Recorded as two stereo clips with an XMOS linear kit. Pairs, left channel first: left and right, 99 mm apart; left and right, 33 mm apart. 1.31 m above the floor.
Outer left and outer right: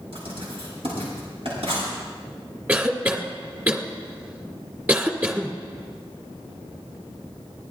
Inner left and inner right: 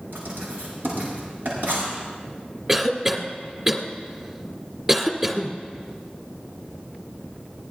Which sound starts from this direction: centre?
A cough, at 2.7 s.